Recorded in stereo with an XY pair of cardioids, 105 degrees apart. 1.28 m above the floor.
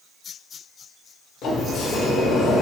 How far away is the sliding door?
About 0.5 m.